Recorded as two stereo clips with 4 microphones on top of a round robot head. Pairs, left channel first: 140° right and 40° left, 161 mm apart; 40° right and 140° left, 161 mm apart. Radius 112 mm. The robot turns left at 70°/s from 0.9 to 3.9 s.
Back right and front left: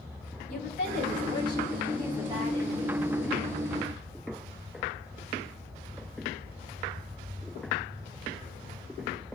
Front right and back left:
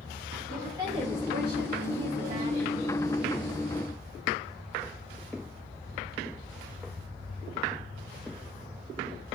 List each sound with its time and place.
0.5 s a woman speaking: 160° right, 6 m; by 3.0 s 50° left, 6 m